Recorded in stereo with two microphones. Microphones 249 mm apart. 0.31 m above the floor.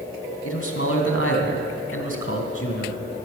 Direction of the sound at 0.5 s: 60° left (ahead or behind).